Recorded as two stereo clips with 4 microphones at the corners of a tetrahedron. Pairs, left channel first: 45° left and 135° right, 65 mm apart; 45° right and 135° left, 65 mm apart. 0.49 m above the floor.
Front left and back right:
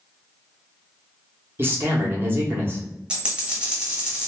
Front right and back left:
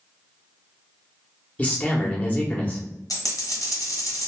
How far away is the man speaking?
About 0.9 m.